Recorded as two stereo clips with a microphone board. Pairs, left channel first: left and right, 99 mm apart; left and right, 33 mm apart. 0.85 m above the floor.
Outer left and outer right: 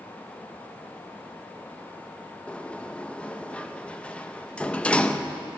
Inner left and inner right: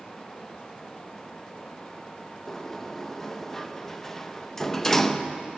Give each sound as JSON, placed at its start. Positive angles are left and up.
{"t": 2.5, "sound": "a sliding door", "side_deg": 10, "distance_m": 0.7}